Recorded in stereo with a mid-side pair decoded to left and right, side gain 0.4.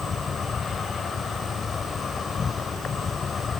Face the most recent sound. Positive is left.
turn(degrees=50)